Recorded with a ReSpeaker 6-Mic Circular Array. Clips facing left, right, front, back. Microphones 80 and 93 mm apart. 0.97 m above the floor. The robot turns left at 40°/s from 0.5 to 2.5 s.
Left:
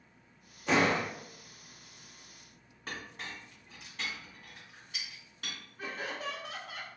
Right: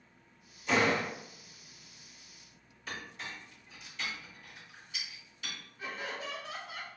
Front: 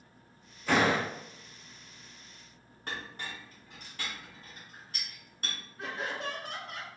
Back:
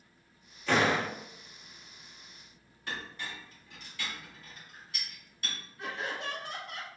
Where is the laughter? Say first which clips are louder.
Left 1 dB, front 1 dB; 50° left, 1.7 m.